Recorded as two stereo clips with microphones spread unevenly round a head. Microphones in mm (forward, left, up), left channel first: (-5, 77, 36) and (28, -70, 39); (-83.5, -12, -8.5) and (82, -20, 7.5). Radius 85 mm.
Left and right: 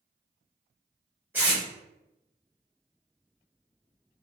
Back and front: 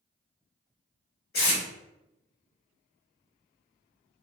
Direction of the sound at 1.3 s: 155° right.